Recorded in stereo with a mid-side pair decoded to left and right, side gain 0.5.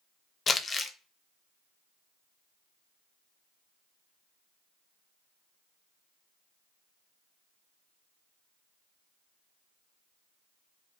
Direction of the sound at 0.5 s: 35° left.